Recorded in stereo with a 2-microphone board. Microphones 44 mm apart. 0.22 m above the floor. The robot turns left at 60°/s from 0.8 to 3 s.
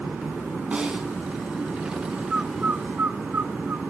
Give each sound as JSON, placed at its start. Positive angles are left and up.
{"t": 0.7, "sound": "a snare drum", "side_deg": -25, "distance_m": 1.7}
{"t": 2.3, "sound": "a bird", "side_deg": -20, "distance_m": 0.6}